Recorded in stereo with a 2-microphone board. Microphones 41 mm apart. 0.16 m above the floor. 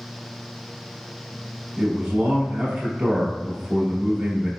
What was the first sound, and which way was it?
A man speaking, 20° right (ahead or behind).